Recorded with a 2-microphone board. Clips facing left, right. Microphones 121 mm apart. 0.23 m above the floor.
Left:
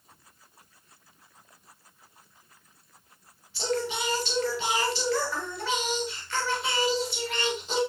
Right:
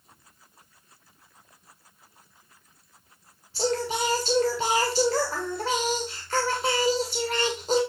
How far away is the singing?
About 9.5 m.